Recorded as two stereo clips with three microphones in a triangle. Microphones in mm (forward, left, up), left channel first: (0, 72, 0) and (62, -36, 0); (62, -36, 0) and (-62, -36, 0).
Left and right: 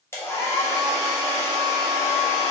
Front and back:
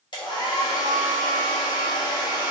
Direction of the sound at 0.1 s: 50° left.